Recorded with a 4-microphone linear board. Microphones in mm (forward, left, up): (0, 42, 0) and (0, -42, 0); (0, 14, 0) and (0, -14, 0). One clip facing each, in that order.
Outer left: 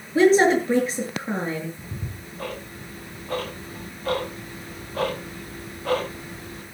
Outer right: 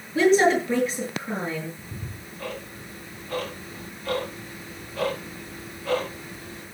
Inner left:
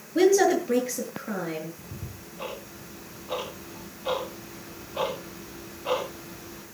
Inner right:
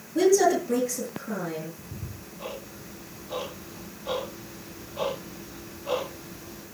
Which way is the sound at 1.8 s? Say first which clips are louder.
Outer left 2 dB, even; 45° left (ahead or behind).